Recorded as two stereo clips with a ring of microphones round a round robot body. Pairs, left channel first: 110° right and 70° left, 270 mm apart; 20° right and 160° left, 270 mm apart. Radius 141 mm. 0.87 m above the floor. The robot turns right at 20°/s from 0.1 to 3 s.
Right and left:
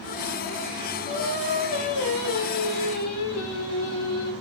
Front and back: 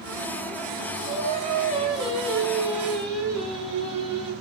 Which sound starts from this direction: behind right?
Singing, at 1.1 s.